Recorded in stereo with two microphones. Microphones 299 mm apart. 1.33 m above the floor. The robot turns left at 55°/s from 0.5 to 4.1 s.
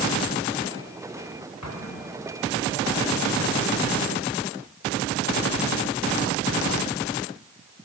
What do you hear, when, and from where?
1.6 s an explosion: 65° left (ahead or behind), 1.5 m; by 2.6 s 10° left (ahead or behind), 1.5 m